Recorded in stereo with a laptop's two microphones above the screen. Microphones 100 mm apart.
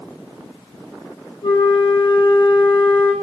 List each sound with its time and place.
1.4 s a flute: 60° left (ahead or behind), 3.5 m